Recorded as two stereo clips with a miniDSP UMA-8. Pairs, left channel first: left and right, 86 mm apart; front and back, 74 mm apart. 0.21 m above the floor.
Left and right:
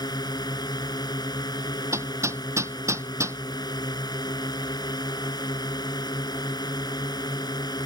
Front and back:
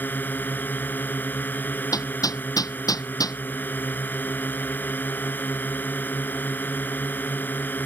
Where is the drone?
60° left.